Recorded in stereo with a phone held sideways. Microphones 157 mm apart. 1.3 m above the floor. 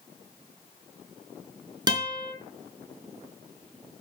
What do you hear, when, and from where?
1.9 s a guitar: 25° right (ahead or behind), 3.5 m